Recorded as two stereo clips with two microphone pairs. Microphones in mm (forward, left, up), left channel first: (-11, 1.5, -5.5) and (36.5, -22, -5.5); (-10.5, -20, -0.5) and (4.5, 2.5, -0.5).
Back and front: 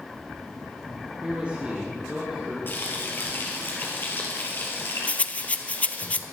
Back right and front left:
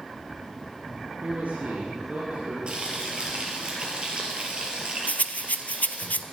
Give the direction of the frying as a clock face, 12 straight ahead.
8 o'clock.